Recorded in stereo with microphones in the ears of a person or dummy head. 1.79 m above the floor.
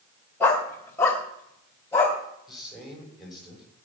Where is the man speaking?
Centre (ahead or behind), 6.5 m.